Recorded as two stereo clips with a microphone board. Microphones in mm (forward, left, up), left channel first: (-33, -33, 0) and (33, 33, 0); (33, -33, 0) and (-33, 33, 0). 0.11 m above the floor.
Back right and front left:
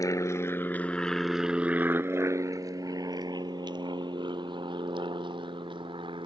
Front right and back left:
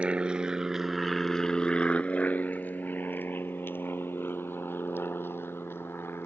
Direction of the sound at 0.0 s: 155° right.